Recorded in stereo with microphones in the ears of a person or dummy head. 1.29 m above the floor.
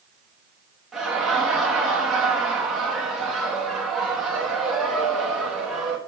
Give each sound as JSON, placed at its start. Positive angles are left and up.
{"t": 0.9, "sound": "laughter", "side_deg": 0, "distance_m": 1.7}